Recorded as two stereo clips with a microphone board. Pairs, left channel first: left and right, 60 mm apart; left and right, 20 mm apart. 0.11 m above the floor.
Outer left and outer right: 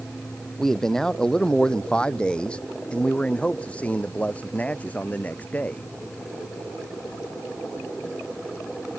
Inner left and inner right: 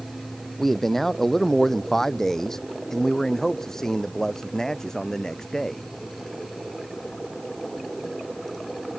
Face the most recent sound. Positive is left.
turn(degrees=25)  # may be behind; listen again after turning